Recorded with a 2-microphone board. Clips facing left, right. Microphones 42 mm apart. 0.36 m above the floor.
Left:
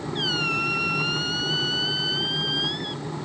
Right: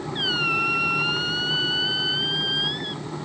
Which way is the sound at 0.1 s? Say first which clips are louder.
Right 2 dB; 10° right (ahead or behind).